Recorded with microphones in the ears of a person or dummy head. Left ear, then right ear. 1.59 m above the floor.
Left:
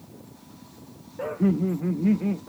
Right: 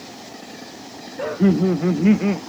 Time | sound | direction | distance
1.2 | laughter | 15° right (ahead or behind) | ?